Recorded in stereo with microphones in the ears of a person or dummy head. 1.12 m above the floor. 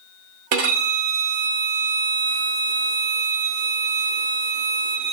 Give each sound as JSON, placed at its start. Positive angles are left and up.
{"t": 0.5, "sound": "a violin", "side_deg": -40, "distance_m": 0.5}